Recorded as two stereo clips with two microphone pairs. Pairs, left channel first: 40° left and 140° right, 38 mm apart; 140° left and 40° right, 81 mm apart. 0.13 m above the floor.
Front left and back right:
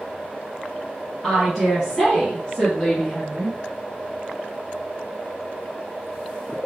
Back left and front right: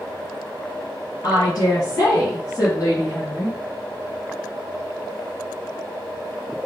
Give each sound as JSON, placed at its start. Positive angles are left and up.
{"t": 1.2, "sound": "a woman speaking", "azimuth_deg": 140, "distance_m": 2.0}